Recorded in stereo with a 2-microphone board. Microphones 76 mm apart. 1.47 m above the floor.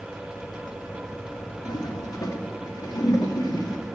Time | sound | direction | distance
1.6 | a toilet flushing | 55° left (ahead or behind) | 1.5 m